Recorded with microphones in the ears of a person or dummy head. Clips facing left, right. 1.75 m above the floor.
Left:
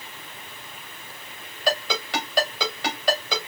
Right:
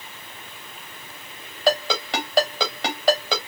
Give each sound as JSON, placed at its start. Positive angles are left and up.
{"t": 1.7, "sound": "a ringtone", "side_deg": -55, "distance_m": 3.0}